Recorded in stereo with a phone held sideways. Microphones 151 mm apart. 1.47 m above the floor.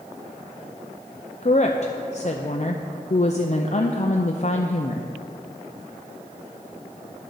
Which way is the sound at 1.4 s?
50° left (ahead or behind).